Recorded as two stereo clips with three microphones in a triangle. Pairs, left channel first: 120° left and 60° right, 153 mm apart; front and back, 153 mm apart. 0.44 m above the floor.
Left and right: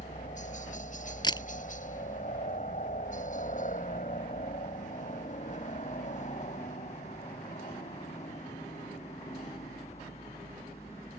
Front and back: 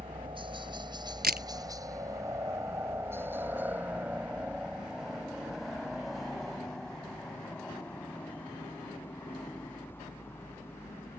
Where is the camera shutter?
Straight behind.